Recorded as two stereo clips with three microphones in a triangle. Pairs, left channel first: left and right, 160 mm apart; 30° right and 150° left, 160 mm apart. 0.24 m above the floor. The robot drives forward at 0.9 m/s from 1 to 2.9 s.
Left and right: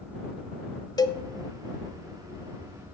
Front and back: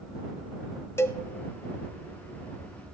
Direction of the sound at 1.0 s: 35° left.